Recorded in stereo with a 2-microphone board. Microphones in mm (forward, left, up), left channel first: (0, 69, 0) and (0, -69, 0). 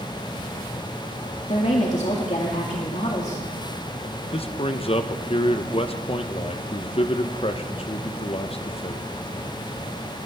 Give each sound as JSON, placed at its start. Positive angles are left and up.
{"t": 1.5, "sound": "a woman speaking", "side_deg": 55, "distance_m": 2.0}
{"t": 4.3, "sound": "a man speaking", "side_deg": 45, "distance_m": 0.8}